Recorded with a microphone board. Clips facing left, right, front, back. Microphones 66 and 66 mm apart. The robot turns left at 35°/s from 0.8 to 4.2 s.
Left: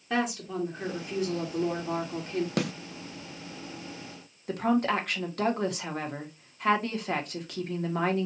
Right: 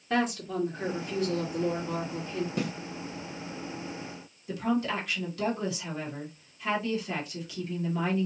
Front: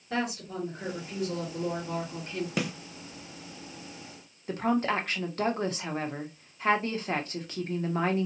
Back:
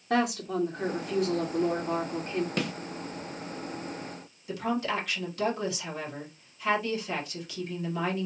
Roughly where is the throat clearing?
No throat clearing in this recording.